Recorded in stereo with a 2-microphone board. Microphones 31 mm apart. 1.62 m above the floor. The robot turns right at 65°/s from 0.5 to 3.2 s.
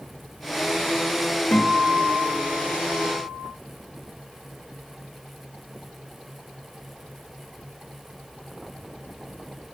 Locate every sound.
1.5 s a guitar: 125° left, 1.3 m; by 3.5 s 125° right, 1.3 m